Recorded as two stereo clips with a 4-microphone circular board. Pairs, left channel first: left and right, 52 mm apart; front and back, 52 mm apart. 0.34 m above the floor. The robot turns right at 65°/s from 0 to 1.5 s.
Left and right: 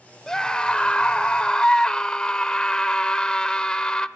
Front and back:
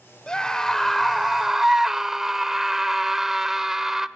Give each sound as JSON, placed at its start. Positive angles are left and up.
{"t": 0.3, "sound": "a scream", "azimuth_deg": 35, "distance_m": 0.8}